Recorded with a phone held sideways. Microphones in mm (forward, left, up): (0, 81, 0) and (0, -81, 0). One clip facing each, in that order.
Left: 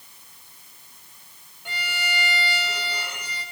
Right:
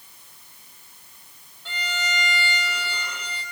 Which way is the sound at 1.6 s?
15° left (ahead or behind).